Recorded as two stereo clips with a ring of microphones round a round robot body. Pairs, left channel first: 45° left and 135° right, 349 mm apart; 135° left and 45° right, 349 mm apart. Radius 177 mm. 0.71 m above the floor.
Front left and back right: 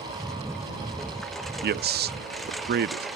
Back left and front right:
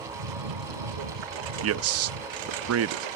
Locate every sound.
0.0 s a lawn mower: 45° right
1.6 s a man speaking: 80° right